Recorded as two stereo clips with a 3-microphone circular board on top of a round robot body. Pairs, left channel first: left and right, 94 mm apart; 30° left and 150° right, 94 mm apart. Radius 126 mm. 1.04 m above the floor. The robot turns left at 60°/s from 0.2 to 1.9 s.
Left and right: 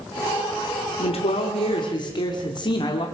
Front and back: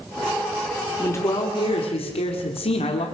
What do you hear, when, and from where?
1.0 s a man speaking: 100° left, 2.5 m; by 3.0 s 45° left, 2.5 m